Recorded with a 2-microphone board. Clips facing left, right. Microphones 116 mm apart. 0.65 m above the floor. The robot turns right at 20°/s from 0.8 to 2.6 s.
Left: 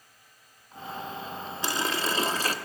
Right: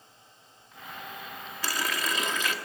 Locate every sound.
1.6 s a running tap: 25° left (ahead or behind), 0.7 m; by 2.5 s 40° left (ahead or behind), 0.7 m